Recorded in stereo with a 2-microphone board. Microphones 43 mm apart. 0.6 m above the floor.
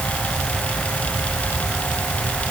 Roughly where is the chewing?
I don't hear chewing.